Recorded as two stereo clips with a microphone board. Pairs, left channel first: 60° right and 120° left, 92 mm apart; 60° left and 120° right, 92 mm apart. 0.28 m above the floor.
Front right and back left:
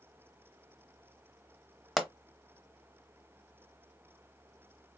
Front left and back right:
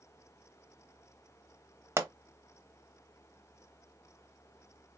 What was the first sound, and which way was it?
A pop, 150° right.